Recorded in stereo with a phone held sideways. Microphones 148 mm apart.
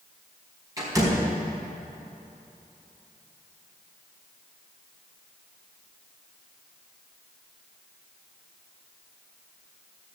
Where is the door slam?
25° right (ahead or behind), 4.5 m.